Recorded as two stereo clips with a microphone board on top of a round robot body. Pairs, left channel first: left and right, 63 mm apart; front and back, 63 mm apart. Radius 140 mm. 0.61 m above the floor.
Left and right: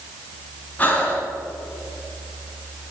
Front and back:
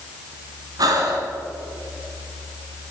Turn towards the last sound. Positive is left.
turn(degrees=155)